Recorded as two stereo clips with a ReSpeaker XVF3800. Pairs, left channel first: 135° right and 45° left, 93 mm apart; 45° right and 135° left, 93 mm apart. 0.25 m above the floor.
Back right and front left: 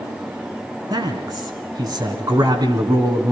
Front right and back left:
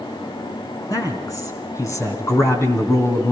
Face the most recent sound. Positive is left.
turn(degrees=15)